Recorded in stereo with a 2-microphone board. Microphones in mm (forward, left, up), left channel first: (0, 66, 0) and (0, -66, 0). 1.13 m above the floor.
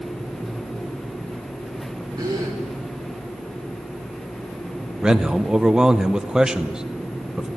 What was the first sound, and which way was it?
A gasp, 30° right (ahead or behind).